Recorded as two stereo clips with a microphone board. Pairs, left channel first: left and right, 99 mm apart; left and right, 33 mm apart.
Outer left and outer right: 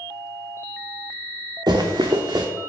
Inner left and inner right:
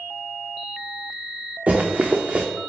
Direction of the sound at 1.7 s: 45° right (ahead or behind).